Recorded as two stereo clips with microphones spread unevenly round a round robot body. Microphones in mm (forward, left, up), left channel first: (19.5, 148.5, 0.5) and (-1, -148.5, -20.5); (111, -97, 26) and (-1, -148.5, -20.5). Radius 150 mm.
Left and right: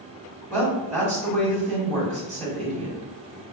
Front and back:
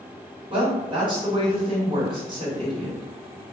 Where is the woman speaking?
155° right, 1.7 m.